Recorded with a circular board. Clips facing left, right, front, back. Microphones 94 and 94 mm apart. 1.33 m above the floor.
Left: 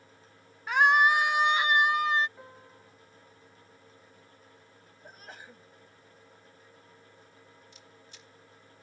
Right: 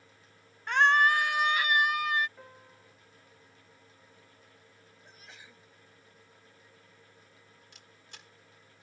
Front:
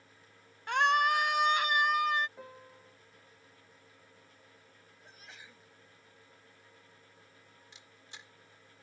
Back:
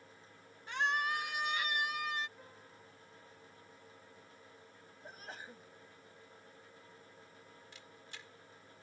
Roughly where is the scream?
Ahead.